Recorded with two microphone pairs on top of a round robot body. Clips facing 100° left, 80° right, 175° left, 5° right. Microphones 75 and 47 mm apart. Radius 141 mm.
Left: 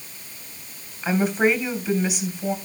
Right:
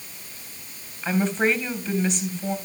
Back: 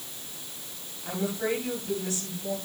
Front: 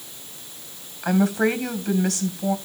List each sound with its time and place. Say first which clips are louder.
1.0 s a woman speaking: left 2 dB, front 9 dB; 15° left, 3.5 m